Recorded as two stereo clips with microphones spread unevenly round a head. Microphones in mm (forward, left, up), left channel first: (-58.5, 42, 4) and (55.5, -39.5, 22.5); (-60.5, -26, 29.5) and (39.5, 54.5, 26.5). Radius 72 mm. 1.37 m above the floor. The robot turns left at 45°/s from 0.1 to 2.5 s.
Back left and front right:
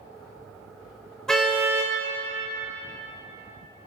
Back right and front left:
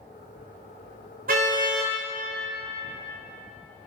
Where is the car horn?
55° left, 2.5 m; by 1.9 s 25° left, 2.5 m.